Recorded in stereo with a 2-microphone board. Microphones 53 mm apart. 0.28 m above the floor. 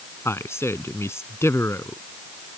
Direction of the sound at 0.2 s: 60° left (ahead or behind).